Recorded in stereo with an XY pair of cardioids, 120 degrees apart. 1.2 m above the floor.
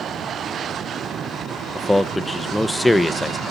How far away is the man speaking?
About 0.6 m.